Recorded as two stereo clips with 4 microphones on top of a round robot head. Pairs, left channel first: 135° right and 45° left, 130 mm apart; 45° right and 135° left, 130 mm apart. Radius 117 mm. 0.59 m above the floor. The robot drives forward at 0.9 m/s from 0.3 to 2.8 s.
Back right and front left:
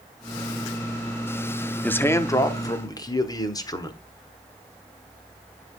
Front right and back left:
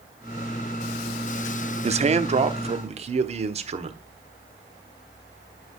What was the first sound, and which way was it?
A man speaking, 150° left.